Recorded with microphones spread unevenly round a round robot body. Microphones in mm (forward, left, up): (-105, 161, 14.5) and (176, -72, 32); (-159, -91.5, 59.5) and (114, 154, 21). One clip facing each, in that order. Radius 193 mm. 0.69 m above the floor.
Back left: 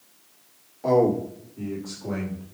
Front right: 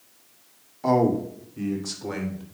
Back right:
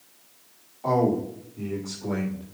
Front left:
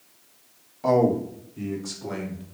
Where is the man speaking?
25° left, 2.5 m; by 2.4 s 20° right, 3.5 m.